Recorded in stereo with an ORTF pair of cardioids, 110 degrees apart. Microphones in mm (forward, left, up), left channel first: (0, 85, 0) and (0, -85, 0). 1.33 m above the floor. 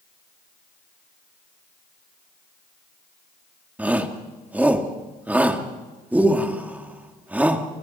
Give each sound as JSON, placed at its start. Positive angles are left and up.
{"t": 3.8, "sound": "a shout", "azimuth_deg": -10, "distance_m": 3.0}